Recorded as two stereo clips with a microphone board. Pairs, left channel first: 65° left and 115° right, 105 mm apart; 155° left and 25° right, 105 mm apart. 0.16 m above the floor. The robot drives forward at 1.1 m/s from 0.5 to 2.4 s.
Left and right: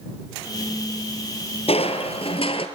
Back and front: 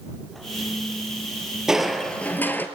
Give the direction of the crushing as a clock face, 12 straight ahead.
10 o'clock.